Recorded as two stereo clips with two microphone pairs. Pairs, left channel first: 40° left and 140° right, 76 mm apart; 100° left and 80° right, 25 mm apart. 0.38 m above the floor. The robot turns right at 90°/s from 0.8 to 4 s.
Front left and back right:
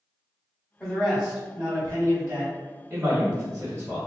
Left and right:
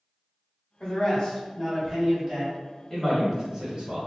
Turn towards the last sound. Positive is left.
turn(degrees=-70)